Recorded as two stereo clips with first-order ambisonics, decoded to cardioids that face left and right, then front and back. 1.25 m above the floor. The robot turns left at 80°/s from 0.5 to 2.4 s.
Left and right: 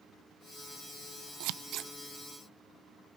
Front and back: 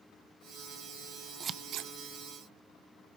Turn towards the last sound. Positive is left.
turn(degrees=175)